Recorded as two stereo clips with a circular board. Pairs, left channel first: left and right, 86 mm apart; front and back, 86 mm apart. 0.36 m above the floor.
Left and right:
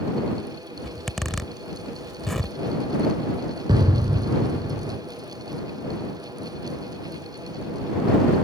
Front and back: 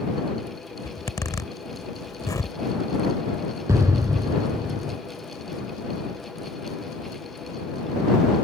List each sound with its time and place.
0.8 s a zipper: straight ahead
3.7 s an explosion: 125° right